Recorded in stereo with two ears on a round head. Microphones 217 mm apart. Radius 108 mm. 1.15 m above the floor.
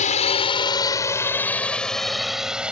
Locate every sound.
0.0 s a drone: 30° left (ahead or behind); by 2.7 s 5° right (ahead or behind)